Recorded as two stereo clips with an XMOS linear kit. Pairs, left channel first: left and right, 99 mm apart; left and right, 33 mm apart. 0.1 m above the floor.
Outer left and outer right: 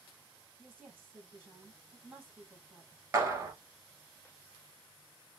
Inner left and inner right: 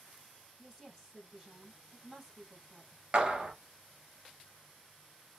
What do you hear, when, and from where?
0.6 s a woman speaking: 15° right (ahead or behind), 3.5 m
3.1 s a clap: 30° right (ahead or behind), 1.4 m